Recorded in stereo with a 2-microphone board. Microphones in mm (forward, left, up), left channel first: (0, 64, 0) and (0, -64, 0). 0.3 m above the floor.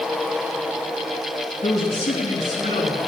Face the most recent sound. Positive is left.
turn(degrees=65)  # may be behind; listen again after turning